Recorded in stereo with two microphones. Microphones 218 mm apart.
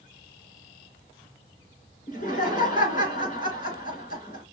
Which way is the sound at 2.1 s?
40° left (ahead or behind).